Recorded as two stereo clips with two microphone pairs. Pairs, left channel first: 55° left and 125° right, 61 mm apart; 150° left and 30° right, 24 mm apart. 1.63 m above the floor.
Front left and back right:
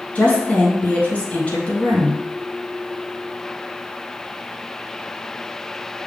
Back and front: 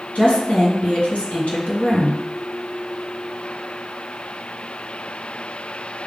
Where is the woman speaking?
125° left, 1.7 m.